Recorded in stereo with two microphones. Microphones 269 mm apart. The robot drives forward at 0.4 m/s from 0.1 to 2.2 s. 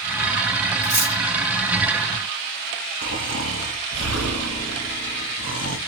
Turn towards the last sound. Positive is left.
turn(degrees=70)  # may be behind; listen again after turning